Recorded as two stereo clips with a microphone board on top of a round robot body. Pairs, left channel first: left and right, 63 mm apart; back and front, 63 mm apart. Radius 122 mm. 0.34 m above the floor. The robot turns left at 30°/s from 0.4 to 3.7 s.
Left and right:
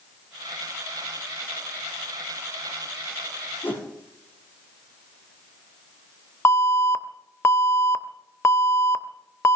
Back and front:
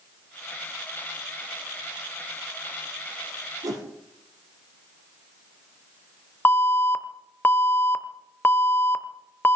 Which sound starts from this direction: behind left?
An alarm, at 6.5 s.